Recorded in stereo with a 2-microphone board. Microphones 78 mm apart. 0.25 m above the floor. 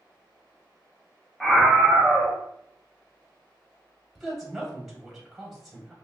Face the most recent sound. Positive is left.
turn(degrees=0)  # may be behind; listen again after turning